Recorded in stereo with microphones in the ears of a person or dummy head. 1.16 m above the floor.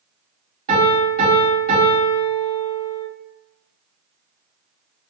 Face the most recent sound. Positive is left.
turn(degrees=-45)  # may be behind; listen again after turning